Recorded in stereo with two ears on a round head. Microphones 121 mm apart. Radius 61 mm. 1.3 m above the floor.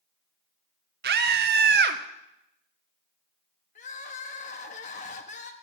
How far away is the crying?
About 1.0 m.